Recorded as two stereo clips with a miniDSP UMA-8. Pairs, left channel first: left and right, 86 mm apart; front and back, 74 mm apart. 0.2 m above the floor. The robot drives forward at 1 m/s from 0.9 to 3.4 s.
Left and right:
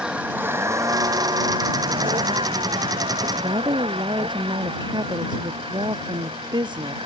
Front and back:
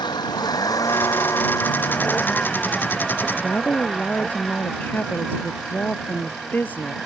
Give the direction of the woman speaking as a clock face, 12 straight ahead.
2 o'clock.